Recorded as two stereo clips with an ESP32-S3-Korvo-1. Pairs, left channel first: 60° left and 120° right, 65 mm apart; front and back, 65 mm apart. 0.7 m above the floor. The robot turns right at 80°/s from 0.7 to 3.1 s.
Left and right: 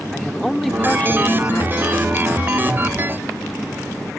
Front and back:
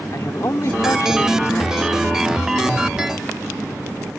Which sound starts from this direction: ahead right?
A man speaking, at 0.1 s.